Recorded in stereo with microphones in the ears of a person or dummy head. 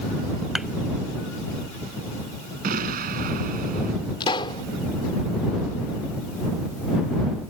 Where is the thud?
Centre (ahead or behind).